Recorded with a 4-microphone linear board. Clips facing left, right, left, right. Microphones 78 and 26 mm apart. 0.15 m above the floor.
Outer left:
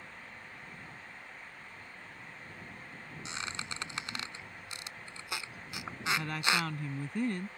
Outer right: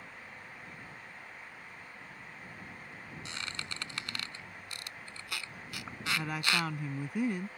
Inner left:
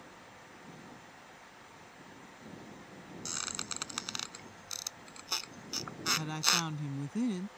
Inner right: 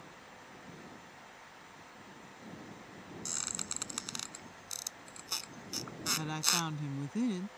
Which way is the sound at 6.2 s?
10° right (ahead or behind).